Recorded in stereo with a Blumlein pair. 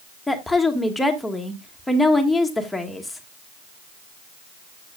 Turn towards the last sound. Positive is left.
turn(degrees=5)